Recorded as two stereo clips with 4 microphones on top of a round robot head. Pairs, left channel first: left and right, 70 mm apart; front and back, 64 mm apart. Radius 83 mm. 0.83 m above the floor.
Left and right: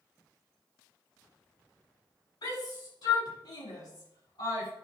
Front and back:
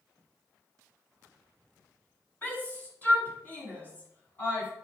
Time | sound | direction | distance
2.4 | a shout | 60° left | 6 m